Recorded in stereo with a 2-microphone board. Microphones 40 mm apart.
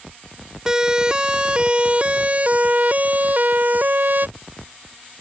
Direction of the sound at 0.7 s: 15° right (ahead or behind).